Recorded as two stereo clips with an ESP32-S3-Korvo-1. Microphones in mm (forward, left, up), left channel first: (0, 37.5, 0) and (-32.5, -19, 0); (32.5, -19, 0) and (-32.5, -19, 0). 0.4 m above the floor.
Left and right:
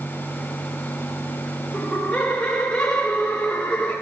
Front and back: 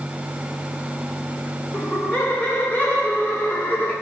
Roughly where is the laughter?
Ahead.